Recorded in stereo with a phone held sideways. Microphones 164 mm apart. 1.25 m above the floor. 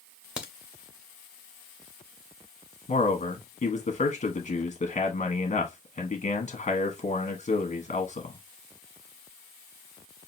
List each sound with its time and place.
0.4 s a crack: 5° right (ahead or behind), 0.9 m
2.9 s a man speaking: 45° left (ahead or behind), 0.9 m